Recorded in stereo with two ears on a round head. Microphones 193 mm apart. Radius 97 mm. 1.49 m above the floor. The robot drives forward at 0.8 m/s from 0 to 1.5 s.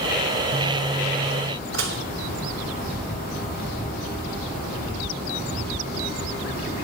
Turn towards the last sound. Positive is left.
turn(degrees=-60)  # may be behind; listen again after turning